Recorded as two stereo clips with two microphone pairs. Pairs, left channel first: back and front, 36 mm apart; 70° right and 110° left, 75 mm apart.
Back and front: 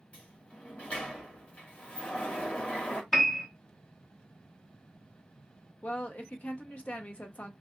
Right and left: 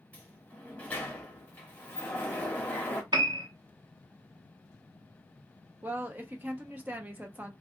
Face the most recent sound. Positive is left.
turn(degrees=165)